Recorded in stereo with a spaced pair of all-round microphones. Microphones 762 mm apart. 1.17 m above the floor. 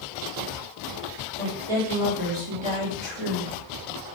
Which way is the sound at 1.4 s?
50° right (ahead or behind).